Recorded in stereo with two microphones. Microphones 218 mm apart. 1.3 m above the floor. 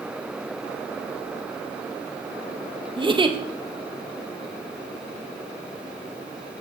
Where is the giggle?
20° right (ahead or behind), 0.5 m.